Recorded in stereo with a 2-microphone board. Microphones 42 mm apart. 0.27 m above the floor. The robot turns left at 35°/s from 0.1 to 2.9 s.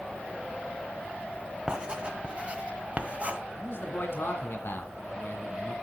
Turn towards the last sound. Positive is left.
turn(degrees=60)  # may be behind; listen again after turning